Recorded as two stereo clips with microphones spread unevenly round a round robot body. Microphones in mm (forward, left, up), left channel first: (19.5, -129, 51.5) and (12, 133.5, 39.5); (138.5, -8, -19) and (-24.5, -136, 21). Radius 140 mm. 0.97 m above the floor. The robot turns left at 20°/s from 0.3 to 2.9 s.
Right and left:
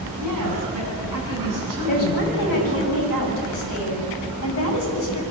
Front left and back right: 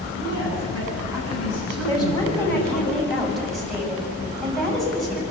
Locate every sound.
0.2 s a woman speaking: 75° left, 7.5 m; by 2.9 s 25° left, 7.5 m
1.9 s a woman speaking: 30° right, 7.5 m; by 5.2 s 50° right, 7.5 m